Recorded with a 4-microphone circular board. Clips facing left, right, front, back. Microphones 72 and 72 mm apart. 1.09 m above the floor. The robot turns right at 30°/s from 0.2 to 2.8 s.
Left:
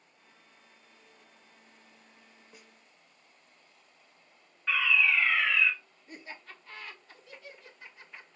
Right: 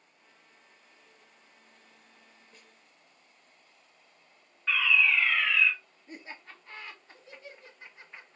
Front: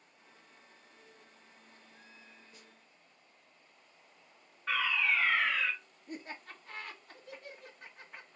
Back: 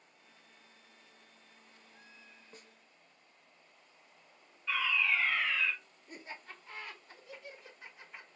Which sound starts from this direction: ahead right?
Laughter, at 6.1 s.